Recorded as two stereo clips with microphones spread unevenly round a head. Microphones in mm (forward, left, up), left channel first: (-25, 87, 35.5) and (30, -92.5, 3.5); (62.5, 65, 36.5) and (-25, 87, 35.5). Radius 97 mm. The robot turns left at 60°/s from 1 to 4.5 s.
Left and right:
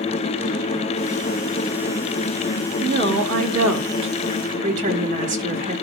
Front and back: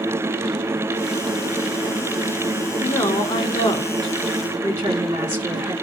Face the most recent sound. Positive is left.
turn(degrees=-130)